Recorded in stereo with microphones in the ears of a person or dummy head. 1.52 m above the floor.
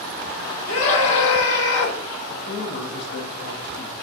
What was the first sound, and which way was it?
A scream, 80° left.